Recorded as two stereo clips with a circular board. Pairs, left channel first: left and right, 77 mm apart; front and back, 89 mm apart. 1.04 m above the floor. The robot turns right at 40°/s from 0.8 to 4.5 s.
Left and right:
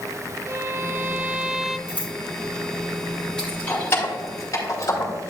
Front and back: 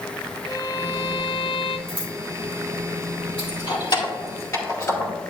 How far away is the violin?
About 0.7 m.